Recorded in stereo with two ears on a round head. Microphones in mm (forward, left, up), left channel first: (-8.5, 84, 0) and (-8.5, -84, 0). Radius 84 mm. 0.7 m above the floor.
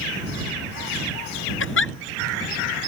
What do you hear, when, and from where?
1.6 s a giggle: 80° left